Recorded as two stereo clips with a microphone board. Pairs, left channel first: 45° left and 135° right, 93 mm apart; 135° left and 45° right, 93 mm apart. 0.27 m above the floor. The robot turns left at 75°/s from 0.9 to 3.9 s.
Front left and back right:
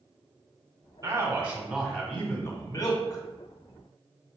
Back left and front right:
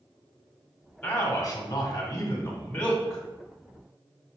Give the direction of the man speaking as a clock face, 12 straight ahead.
5 o'clock.